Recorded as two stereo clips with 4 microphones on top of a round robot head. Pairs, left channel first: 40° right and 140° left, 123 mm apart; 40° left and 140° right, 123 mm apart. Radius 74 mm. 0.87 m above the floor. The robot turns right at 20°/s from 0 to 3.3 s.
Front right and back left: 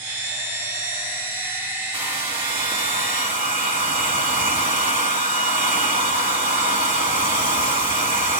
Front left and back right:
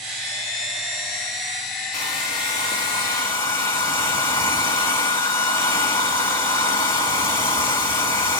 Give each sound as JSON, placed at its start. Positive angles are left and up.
{"t": 1.9, "sound": "a hair dryer", "azimuth_deg": 75, "distance_m": 1.7}